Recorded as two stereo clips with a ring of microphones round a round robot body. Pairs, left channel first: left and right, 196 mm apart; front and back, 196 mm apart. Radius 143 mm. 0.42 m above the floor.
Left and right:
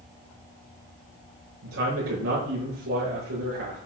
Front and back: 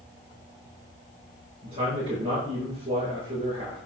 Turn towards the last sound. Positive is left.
turn(degrees=-110)